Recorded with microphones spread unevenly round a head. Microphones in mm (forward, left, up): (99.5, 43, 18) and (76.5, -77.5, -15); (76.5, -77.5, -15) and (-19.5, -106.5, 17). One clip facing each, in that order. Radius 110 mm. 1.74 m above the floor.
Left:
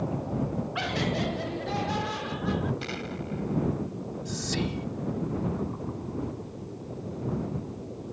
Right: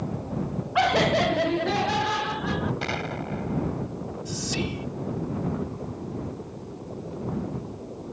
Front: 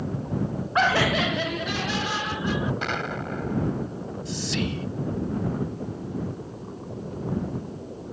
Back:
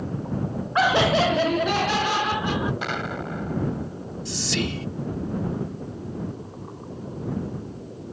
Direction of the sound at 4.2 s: 170° left.